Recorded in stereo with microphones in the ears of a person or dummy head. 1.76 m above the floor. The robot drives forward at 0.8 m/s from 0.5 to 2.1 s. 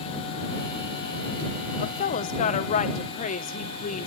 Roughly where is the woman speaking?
Left.